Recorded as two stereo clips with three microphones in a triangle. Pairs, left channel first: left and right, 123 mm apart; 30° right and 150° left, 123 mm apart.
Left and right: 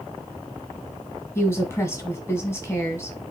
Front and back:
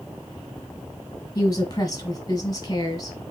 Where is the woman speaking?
25° left, 1.9 m.